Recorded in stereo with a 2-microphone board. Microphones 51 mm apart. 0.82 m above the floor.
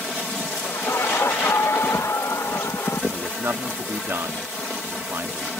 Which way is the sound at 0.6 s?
80° left.